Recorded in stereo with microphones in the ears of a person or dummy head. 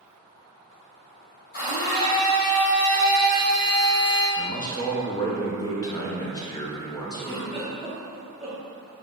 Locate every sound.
1.5 s a blender: 55° left (ahead or behind), 1.8 m
4.4 s a man speaking: 20° left (ahead or behind), 0.7 m
7.2 s a giggle: centre (ahead or behind), 1.1 m